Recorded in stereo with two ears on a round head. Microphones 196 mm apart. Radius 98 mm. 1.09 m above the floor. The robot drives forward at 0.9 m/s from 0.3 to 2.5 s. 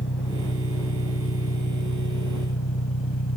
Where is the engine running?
55° left (ahead or behind); by 3.4 s 70° left (ahead or behind).